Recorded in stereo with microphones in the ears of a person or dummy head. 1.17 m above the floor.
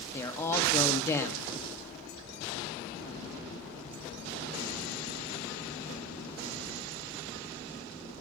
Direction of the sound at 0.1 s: 15° left (ahead or behind).